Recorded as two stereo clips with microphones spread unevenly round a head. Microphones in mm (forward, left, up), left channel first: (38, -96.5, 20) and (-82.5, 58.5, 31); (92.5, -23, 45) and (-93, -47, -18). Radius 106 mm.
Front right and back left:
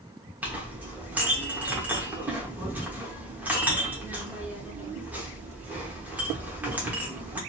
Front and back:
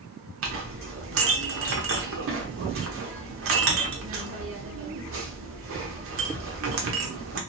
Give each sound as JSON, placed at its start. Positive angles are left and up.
{"t": 0.4, "sound": "a clink", "azimuth_deg": -155, "distance_m": 0.8}